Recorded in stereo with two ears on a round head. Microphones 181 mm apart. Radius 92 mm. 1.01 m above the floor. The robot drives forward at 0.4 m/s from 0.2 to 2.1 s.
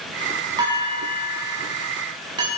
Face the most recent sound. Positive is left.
turn(degrees=-25)  # may be behind; listen again after turning